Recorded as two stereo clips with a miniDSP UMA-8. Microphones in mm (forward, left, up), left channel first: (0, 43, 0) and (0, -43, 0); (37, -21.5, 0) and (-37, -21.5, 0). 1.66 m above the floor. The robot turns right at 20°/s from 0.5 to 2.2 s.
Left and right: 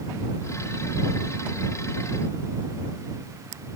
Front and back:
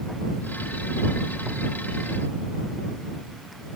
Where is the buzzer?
I don't hear a buzzer.